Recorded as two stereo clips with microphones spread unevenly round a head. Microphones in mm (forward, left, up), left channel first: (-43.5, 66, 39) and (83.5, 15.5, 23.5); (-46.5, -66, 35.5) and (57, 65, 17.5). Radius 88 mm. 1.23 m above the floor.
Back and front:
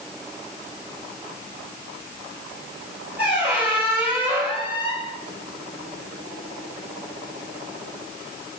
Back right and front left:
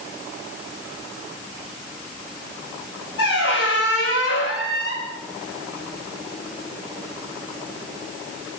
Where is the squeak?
105° right, 3 m.